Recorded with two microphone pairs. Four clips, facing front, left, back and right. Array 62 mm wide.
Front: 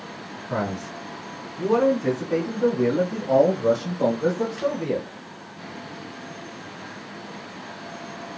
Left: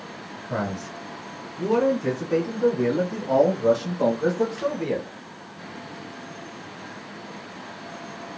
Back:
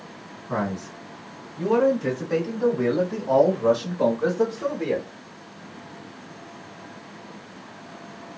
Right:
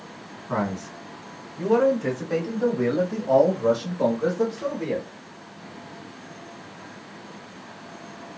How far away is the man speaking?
About 3 m.